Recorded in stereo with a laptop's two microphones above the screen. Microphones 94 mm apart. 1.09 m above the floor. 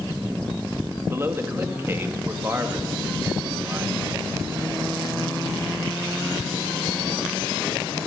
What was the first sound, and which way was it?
A man speaking, 25° right (ahead or behind).